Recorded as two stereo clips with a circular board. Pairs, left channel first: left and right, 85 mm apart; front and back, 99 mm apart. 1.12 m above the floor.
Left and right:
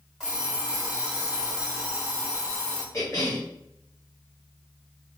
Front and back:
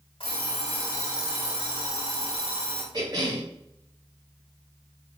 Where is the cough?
135° left, 1.2 m.